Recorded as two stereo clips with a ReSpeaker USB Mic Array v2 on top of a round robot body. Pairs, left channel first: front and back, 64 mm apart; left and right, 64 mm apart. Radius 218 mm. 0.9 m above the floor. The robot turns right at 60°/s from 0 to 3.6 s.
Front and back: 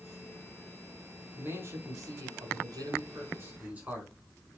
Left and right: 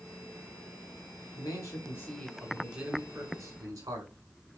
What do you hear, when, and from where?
1.4 s a man speaking: 115° left, 4 m; by 4.6 s 110° right, 4 m